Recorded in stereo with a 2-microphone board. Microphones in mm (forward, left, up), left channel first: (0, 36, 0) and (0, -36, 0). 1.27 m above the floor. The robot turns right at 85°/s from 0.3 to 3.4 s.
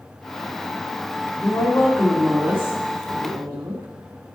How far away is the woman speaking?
About 1.7 m.